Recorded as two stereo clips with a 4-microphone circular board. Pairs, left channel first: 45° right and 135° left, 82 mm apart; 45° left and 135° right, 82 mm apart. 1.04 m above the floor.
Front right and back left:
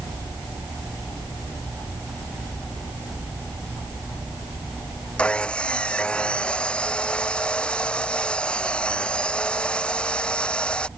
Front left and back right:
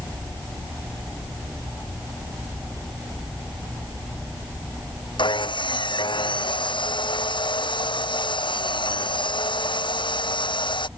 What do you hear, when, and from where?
5.2 s sawing: 30° left